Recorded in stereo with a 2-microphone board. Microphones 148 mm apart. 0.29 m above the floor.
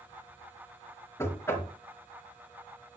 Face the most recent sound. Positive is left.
turn(degrees=15)  # may be behind; listen again after turning